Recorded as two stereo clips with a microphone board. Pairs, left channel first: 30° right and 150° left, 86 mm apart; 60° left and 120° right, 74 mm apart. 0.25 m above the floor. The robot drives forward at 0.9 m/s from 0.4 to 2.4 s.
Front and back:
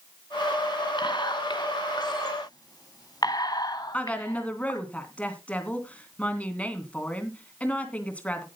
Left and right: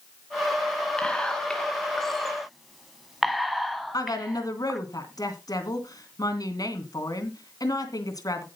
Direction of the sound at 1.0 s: 15° right.